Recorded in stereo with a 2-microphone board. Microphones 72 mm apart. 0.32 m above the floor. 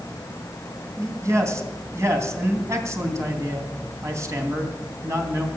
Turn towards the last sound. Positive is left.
turn(degrees=-40)  # may be behind; listen again after turning